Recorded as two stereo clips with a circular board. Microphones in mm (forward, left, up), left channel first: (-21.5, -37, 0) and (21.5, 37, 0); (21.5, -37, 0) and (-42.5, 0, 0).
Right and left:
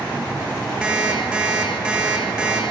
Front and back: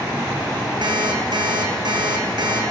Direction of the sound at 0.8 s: 140° left.